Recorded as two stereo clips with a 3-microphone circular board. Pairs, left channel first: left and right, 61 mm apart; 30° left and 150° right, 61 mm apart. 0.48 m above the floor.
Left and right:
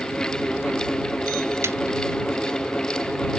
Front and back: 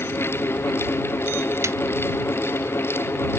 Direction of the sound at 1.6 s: 125° right.